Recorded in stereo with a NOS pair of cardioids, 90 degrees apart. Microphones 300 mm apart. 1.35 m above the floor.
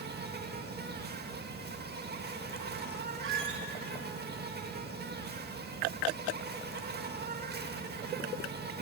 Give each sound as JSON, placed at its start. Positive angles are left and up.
{"t": 0.0, "sound": "an insect", "azimuth_deg": -30, "distance_m": 1.7}
{"t": 3.2, "sound": "a squeak", "azimuth_deg": -40, "distance_m": 3.5}